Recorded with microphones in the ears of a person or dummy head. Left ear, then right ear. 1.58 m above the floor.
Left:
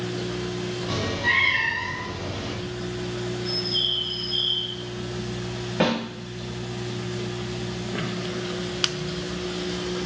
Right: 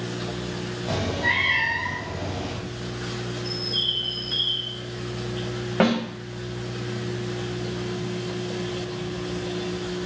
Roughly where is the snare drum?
Right.